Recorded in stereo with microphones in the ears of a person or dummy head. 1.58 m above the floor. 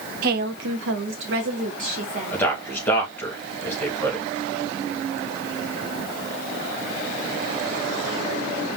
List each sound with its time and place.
0.2 s a woman speaking: 60° right (ahead or behind), 1.1 m; by 3.3 s 25° right (ahead or behind), 2.5 m
2.3 s a man speaking: 15° left (ahead or behind), 1.9 m